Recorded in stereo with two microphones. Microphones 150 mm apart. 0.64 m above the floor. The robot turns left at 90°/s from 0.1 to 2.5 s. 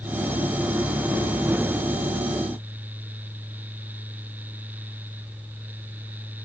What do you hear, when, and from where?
Only background noise.